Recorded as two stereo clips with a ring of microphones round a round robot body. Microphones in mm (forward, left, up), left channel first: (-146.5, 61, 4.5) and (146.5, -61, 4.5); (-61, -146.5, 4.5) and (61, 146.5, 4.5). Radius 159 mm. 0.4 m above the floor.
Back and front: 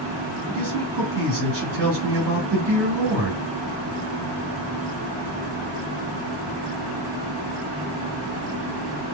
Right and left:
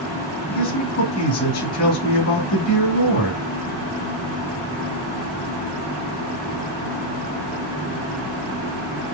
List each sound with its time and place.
0.5 s a man speaking: 80° right, 2 m